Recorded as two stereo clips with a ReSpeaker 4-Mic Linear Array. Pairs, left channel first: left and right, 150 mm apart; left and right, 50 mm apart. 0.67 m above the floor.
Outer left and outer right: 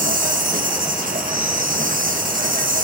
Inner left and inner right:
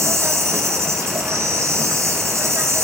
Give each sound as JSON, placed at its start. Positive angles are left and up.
{"t": 0.0, "sound": "an insect", "side_deg": -65, "distance_m": 3.0}